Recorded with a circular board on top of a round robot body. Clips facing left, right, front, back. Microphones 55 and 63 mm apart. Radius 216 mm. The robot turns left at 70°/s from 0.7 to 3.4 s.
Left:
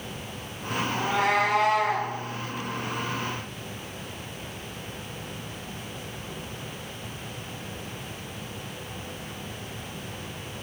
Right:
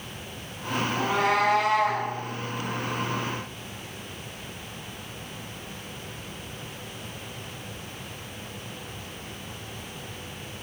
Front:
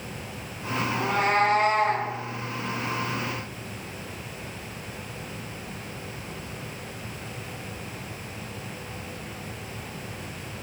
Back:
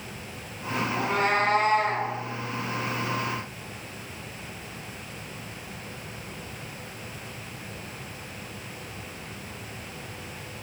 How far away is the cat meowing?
About 1.1 m.